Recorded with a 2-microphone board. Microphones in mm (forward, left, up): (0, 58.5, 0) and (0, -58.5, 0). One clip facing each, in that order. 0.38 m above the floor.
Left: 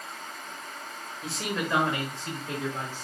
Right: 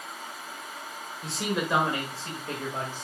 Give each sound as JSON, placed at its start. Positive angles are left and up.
{"t": 1.2, "sound": "a man speaking", "side_deg": 5, "distance_m": 1.1}